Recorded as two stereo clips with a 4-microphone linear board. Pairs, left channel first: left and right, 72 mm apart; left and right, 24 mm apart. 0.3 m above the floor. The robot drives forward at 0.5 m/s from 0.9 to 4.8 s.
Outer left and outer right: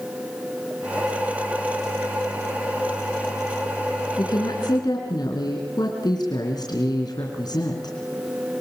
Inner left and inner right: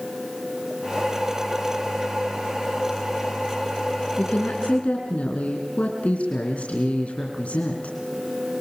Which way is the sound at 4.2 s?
70° left (ahead or behind).